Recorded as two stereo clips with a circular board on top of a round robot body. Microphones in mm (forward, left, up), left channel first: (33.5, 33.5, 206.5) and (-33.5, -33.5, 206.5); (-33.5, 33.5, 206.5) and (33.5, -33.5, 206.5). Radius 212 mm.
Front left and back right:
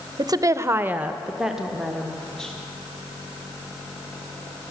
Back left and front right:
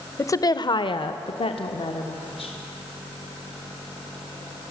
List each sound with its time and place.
0.2 s a woman speaking: 170° right, 0.9 m; by 2.5 s 130° left, 2 m